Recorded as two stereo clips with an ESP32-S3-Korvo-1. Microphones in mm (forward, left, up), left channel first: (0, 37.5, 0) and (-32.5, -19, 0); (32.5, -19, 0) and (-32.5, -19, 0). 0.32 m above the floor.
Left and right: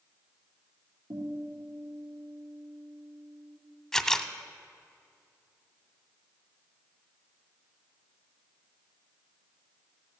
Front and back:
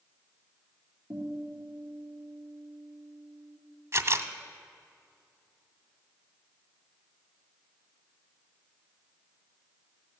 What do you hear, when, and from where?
1.1 s a guitar: 125° right, 4 m
3.9 s a camera shutter: 145° left, 0.7 m